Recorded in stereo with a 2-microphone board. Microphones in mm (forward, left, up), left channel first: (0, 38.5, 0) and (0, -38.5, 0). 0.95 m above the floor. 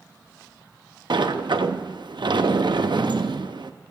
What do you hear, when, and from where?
1.1 s a sliding door: 80° right, 0.6 m